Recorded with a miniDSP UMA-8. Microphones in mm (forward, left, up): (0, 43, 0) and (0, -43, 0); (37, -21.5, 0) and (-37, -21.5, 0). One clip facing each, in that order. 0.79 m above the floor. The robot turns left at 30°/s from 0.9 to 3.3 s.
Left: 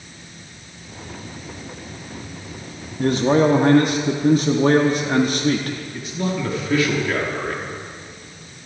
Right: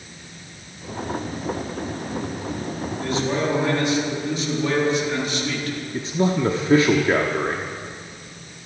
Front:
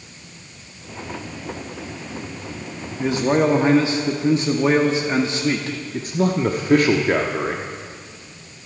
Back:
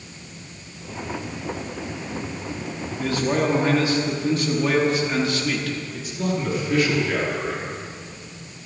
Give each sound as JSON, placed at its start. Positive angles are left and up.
{"t": 3.0, "sound": "a man speaking", "azimuth_deg": 70, "distance_m": 1.3}
{"t": 5.9, "sound": "a man speaking", "azimuth_deg": -35, "distance_m": 1.1}